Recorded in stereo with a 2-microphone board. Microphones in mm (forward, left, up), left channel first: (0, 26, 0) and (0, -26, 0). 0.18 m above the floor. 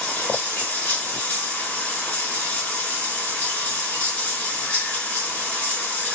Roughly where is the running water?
Left.